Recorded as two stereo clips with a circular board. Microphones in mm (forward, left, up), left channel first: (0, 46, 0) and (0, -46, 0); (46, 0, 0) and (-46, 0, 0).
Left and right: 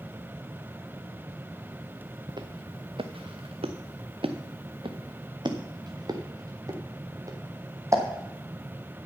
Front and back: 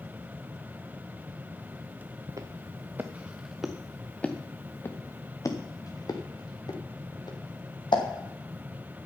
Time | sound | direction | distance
2.3 | footsteps | 130° right | 1.2 m